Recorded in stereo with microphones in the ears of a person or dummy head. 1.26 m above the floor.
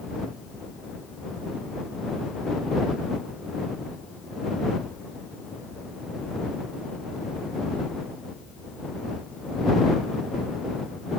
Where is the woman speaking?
I don't hear a woman speaking.